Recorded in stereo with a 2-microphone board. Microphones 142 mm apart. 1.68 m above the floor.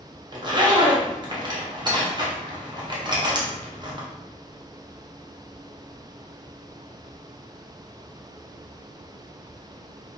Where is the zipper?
35° right (ahead or behind), 0.7 m.